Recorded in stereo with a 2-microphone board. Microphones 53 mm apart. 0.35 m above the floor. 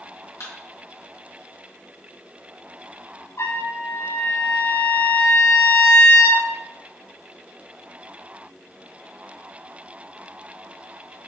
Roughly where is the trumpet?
Left.